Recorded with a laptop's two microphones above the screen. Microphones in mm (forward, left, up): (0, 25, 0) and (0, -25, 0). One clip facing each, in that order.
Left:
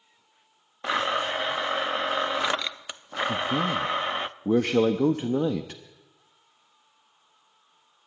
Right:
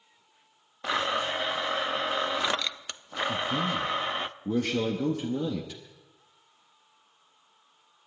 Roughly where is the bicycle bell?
I don't hear a bicycle bell.